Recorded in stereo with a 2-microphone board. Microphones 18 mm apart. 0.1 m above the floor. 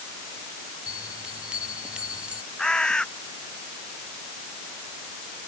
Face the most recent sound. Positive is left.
turn(degrees=40)  # may be behind; listen again after turning